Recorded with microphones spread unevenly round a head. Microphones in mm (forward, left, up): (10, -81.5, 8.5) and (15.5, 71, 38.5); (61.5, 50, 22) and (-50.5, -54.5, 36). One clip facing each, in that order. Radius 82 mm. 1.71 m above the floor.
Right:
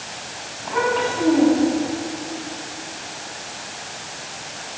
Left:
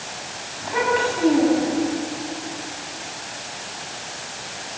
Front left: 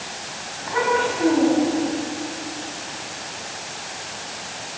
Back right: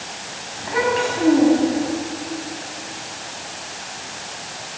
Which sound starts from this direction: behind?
A child speaking, at 0.6 s.